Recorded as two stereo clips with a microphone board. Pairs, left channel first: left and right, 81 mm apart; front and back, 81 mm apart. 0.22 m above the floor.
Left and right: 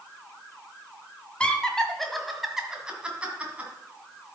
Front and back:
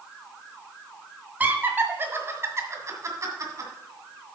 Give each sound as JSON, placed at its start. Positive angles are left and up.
{"t": 1.4, "sound": "laughter", "azimuth_deg": 145, "distance_m": 1.5}